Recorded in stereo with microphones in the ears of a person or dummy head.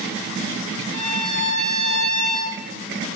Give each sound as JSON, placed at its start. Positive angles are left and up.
{"t": 0.9, "sound": "a violin", "side_deg": -25, "distance_m": 2.5}